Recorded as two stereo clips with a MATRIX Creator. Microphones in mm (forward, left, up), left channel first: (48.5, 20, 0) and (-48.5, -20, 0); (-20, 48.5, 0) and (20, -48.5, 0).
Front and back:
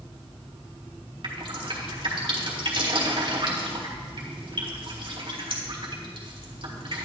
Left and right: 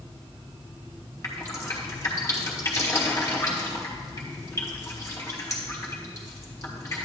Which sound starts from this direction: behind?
Dripping, at 1.2 s.